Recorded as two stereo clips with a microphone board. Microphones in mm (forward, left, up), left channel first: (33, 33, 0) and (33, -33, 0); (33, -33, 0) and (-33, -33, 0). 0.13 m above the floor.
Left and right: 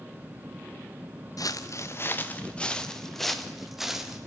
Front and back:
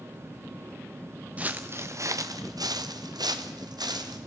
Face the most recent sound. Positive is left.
turn(degrees=-175)